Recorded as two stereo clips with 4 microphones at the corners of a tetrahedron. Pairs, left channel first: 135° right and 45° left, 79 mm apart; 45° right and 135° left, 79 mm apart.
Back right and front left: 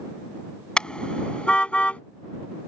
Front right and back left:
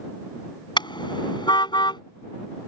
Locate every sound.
0.8 s a car horn: 55° right; by 2.0 s 60° right